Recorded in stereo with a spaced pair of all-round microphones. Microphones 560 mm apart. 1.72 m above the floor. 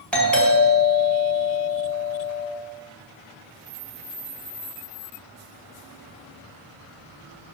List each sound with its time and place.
0.1 s a doorbell: centre (ahead or behind), 4.5 m